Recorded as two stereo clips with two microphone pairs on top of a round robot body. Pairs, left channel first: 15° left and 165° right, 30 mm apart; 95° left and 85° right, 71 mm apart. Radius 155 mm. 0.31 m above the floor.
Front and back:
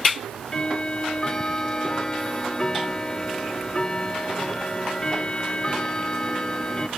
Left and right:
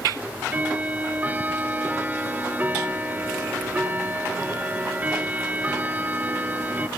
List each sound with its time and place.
0.2 s ticking: 45° right, 1.6 m